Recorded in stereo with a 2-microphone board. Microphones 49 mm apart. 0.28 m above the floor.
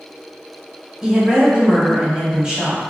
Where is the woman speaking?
20° right (ahead or behind), 1.7 m.